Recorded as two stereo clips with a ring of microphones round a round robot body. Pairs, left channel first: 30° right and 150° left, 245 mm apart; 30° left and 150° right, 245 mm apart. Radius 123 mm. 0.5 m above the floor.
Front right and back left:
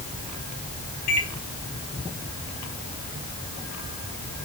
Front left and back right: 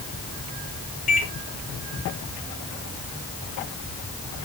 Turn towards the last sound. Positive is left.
turn(degrees=-30)